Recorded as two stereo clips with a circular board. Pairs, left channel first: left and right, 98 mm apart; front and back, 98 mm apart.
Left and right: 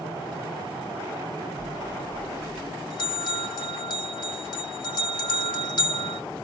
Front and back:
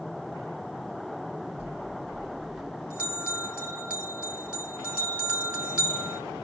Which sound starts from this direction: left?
A bell, at 1.6 s.